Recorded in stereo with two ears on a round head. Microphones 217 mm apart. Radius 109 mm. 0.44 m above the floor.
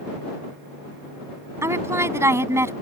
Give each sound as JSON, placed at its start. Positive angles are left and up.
{"t": 1.6, "sound": "a woman speaking", "side_deg": -10}